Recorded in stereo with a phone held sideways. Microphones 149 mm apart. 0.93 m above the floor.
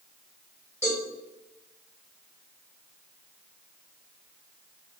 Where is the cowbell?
15° right (ahead or behind), 2.0 m.